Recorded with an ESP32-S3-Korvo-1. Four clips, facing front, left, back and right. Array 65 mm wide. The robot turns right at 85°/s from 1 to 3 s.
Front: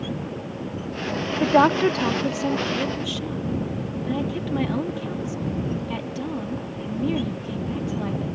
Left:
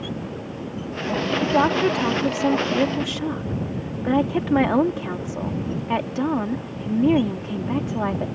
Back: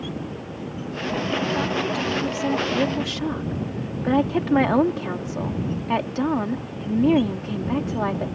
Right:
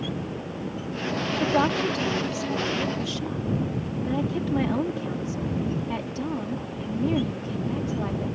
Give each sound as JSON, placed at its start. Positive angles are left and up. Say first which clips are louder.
{"t": 1.4, "sound": "a woman speaking", "louder": "left 4 dB, front 7 dB", "azimuth_deg": 0}